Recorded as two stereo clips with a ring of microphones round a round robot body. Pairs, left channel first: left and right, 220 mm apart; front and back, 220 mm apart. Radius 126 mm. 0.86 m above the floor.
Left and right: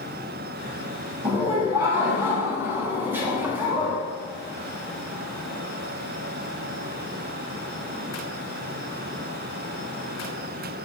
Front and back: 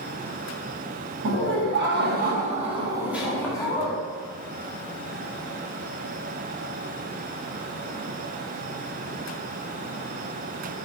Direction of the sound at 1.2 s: 170° right.